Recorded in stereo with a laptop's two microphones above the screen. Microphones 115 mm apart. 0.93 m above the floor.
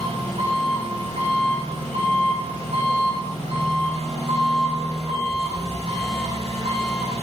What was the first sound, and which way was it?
An engine running, 75° right (ahead or behind).